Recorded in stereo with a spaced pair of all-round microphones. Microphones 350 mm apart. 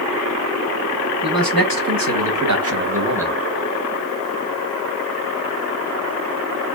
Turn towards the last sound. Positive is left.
turn(degrees=0)  # may be behind; listen again after turning